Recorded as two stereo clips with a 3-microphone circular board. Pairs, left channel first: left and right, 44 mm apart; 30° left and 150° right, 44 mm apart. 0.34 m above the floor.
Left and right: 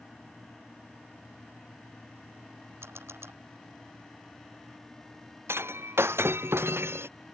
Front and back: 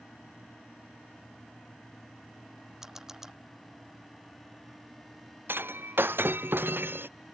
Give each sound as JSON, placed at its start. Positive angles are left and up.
{"t": 2.8, "sound": "a camera shutter", "azimuth_deg": -70}
{"t": 5.5, "sound": "breaking glass", "azimuth_deg": -115}